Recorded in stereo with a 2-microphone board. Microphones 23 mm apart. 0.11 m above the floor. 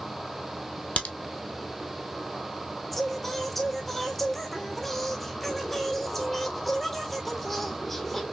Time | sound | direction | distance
1.0 | a crack | 70° left (ahead or behind) | 1.0 m
2.9 | singing | 5° left (ahead or behind) | 1.2 m